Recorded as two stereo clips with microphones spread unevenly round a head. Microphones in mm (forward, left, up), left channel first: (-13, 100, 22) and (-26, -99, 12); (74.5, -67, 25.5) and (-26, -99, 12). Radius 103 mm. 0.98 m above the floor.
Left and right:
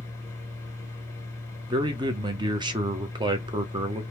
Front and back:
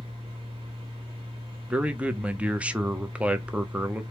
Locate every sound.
0.0 s a fan: 165° left, 1.5 m
1.7 s a man speaking: 120° right, 0.5 m